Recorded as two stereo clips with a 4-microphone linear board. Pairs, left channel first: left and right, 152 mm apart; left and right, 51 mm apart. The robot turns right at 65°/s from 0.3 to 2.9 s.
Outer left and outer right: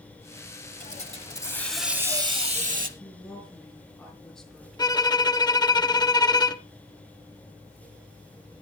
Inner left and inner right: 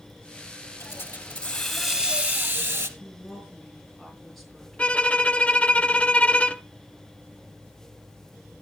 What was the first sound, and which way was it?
A hiss, 115° left.